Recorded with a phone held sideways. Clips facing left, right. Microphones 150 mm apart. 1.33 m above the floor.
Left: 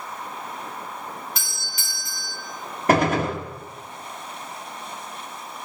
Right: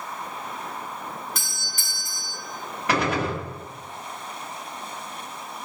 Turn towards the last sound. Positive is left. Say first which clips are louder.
# left 5 dB
turn(degrees=45)  # may be behind; listen again after turning